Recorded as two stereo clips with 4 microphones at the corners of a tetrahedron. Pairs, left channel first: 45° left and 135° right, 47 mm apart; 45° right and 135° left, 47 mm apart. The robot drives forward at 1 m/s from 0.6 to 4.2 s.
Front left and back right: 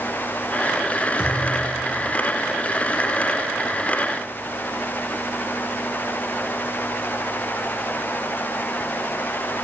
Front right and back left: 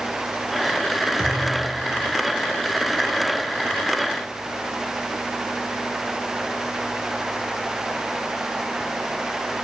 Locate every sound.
1.2 s a thud: 70° left, 6.5 m; by 2.1 s 80° left, 6 m